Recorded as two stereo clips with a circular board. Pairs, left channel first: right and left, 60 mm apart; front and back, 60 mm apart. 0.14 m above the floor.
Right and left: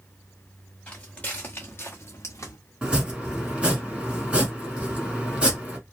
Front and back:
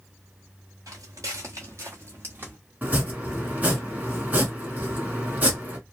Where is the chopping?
145° left, 1.2 m.